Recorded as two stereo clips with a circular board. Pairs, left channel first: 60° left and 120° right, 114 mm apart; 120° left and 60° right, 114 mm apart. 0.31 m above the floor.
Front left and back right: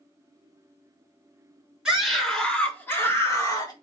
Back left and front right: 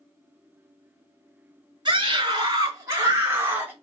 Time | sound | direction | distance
1.9 | a scream | 40° right | 1.6 m